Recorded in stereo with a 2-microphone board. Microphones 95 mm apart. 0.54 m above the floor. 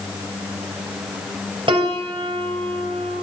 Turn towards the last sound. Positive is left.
turn(degrees=-60)  # may be behind; listen again after turning